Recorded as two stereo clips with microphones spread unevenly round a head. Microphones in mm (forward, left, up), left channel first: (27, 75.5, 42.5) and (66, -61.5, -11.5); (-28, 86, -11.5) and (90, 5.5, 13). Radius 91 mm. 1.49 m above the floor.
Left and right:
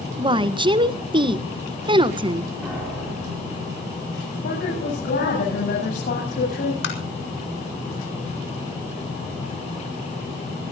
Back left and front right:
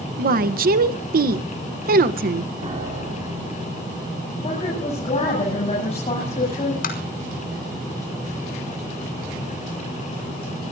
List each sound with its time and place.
0.2 s a woman speaking: 15° right, 1.3 m
2.6 s a piano: 10° left, 6.5 m
4.4 s a woman speaking: 100° left, 9 m
6.8 s tapping: 125° left, 5 m